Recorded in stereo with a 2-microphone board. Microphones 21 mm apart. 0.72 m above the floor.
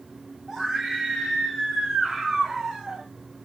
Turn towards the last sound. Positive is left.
turn(degrees=-25)  # may be behind; listen again after turning